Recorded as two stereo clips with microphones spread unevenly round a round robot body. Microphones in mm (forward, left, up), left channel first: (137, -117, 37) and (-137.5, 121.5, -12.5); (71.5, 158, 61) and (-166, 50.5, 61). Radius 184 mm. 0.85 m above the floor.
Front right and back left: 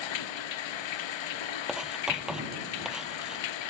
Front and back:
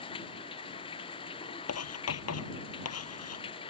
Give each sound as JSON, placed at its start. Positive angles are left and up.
{"t": 0.0, "sound": "running water", "azimuth_deg": -50}
{"t": 1.7, "sound": "writing", "azimuth_deg": 50}